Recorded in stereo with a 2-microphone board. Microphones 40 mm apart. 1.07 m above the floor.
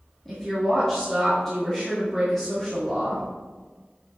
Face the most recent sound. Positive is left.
turn(degrees=10)  # may be behind; listen again after turning